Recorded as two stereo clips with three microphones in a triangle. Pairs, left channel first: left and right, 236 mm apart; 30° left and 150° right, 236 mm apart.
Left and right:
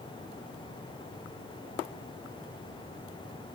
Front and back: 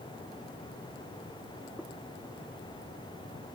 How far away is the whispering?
I don't hear whispering.